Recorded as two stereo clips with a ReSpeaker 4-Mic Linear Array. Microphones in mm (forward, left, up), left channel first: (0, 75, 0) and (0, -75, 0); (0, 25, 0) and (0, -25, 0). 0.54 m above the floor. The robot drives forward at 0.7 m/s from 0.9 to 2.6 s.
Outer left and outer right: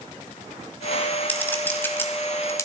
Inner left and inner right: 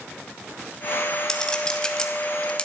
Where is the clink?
10° left (ahead or behind), 2 m; by 2.7 s 20° left (ahead or behind), 1.2 m.